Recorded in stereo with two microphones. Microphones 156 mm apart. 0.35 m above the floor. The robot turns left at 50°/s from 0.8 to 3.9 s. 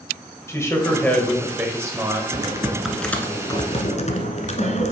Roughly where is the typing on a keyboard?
Behind right.